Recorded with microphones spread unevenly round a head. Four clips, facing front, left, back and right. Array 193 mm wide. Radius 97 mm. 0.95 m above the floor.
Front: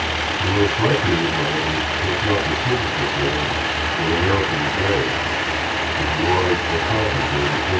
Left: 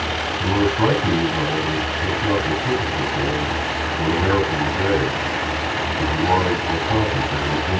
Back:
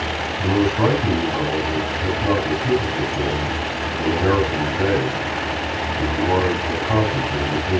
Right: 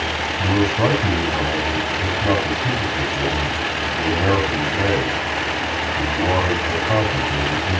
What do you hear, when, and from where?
0.4 s a man speaking: 125° right, 6.5 m